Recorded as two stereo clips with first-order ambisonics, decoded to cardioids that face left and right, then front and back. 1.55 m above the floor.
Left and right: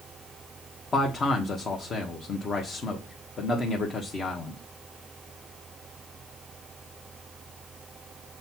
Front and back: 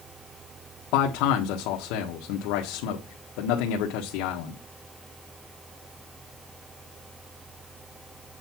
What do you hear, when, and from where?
0.9 s a man speaking: 20° left, 1.3 m